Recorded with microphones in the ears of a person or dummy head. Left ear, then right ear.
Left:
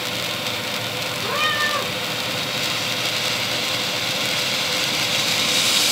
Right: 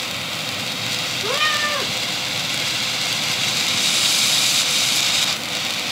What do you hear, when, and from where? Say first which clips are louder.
1.2 s a cat meowing: right 1 dB; 5° right (ahead or behind), 0.7 m